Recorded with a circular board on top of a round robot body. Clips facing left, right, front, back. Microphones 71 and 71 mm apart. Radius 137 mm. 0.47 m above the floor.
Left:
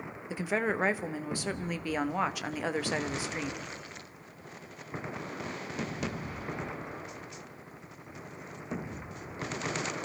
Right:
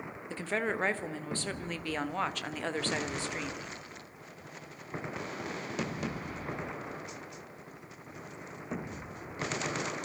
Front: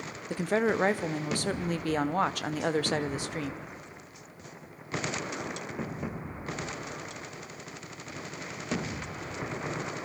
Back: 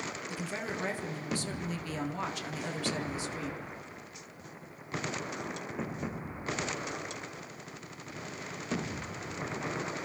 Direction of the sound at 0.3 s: 10° left.